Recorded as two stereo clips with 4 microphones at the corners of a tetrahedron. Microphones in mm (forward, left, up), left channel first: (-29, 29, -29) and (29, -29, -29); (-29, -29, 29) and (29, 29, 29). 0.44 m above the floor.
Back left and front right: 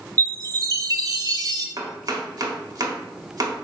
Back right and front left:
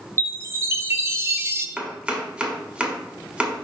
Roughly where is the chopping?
Ahead right.